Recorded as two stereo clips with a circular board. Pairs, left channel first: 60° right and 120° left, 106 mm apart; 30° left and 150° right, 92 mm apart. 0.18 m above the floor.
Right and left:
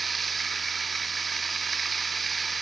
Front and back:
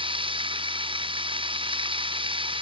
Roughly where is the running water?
Behind right.